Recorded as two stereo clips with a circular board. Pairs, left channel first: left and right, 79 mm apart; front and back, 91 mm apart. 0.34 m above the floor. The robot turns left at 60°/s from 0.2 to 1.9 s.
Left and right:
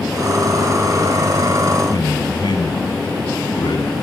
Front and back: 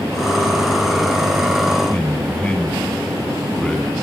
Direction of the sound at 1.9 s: 75° left.